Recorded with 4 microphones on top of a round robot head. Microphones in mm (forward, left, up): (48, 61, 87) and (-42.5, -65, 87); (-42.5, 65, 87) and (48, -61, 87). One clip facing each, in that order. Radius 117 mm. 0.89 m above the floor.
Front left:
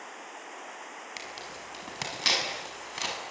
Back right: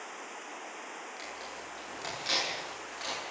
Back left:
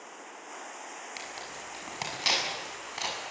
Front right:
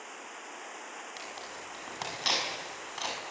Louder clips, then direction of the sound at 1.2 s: Front left 1 dB, back left 1 dB; 45° left.